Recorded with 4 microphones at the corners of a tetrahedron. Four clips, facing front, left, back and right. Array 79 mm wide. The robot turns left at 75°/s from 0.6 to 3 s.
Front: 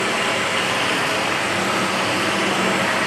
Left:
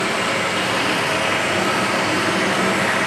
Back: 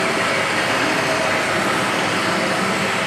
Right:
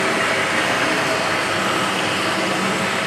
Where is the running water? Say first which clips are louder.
Right 1 dB, back 2 dB; 100° right, 2.5 m; by 3.1 s 80° left, 2.5 m.